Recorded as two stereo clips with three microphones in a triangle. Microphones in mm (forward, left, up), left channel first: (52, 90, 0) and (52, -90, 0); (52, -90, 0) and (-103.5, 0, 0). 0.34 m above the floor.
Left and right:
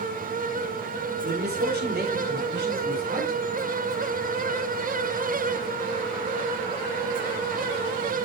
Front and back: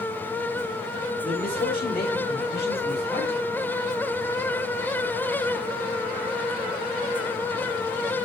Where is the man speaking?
65° right, 6.5 m; by 3.4 s 60° right, 7.5 m.